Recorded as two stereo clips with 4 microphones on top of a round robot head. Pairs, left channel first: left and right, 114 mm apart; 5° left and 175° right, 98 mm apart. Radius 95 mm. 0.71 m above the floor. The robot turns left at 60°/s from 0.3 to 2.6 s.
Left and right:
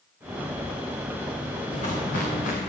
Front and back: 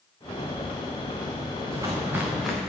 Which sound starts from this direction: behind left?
Footsteps, at 1.7 s.